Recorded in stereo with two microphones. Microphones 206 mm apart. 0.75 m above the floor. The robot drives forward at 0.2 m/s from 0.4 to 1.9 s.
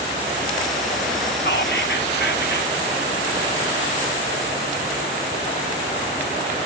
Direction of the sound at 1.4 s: 55° left (ahead or behind).